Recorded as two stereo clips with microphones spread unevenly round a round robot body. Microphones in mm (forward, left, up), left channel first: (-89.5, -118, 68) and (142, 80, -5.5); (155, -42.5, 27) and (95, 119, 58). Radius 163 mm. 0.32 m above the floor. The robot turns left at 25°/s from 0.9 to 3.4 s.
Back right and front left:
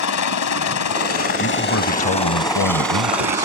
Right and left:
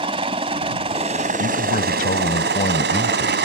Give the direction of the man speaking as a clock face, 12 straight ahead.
3 o'clock.